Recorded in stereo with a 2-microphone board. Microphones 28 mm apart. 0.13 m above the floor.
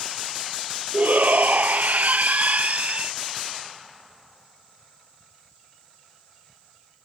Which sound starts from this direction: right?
A shout, at 0.9 s.